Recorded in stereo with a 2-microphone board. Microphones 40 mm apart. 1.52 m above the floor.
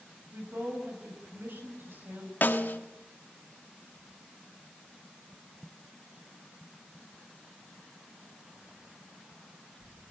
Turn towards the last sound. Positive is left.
turn(degrees=55)  # may be behind; listen again after turning